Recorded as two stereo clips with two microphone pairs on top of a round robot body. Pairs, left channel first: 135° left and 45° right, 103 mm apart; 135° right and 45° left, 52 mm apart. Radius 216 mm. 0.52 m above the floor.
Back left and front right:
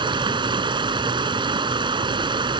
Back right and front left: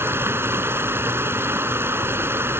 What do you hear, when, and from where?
0.0 s running water: straight ahead